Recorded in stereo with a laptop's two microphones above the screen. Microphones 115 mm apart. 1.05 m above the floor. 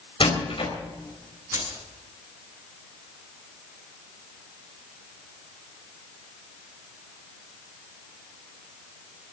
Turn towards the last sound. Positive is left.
turn(degrees=-25)  # may be behind; listen again after turning